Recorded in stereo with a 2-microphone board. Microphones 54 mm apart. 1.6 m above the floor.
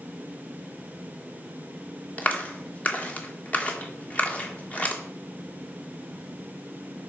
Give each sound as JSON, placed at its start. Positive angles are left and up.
{"t": 2.2, "sound": "a clap", "side_deg": 25, "distance_m": 1.5}